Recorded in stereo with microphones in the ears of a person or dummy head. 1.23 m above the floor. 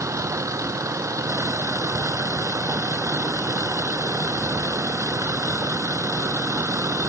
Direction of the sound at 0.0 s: 10° right (ahead or behind).